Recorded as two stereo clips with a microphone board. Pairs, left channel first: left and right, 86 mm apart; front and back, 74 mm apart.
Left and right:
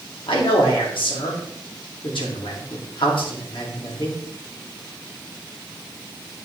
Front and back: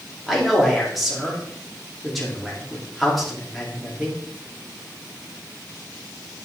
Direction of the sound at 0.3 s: 90° left.